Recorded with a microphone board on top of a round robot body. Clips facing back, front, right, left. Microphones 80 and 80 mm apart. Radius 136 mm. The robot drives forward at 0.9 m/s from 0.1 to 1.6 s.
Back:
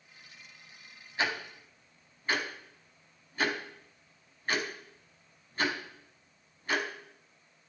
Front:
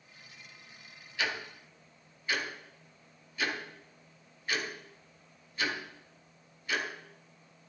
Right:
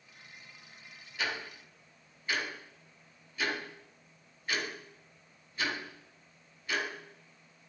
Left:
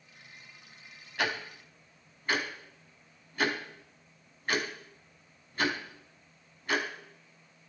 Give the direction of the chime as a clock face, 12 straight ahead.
I don't hear a chime.